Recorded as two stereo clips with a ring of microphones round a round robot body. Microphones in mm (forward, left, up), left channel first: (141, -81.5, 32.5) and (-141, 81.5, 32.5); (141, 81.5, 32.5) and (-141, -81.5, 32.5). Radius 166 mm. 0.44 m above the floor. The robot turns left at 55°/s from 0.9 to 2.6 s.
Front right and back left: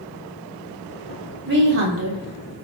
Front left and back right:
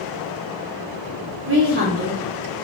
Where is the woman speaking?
170° right, 1.0 m; by 2.5 s 130° left, 1.0 m.